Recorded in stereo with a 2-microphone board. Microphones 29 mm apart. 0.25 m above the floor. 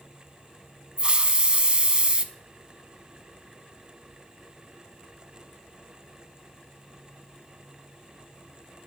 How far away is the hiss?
About 0.6 m.